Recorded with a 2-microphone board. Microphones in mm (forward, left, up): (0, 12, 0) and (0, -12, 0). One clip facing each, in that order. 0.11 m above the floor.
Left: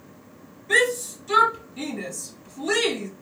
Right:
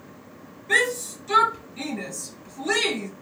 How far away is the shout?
About 2.0 m.